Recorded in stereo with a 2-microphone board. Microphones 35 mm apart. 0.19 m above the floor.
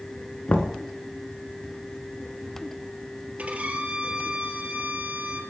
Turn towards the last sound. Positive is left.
turn(degrees=-35)  # may be behind; listen again after turning